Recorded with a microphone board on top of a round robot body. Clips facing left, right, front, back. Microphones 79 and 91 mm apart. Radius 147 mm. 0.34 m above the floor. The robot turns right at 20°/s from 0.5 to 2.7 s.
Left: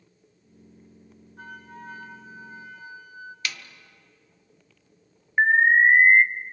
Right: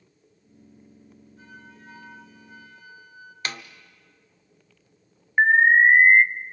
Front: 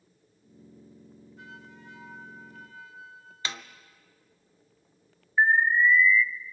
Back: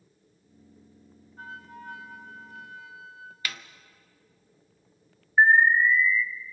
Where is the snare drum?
55° right, 1.1 m.